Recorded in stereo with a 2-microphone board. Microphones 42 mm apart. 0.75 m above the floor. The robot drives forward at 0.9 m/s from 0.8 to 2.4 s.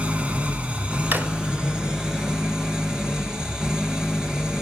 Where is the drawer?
55° right (ahead or behind), 1.6 m; by 1.3 s 50° right (ahead or behind), 1.7 m.